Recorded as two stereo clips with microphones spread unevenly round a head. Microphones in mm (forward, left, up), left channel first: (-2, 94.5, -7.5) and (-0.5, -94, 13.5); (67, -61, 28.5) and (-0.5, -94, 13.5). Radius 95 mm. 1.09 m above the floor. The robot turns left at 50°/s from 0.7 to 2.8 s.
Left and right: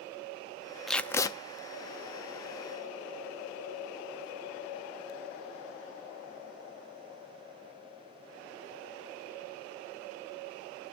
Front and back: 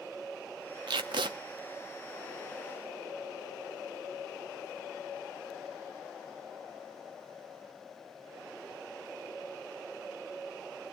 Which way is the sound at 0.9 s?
175° right.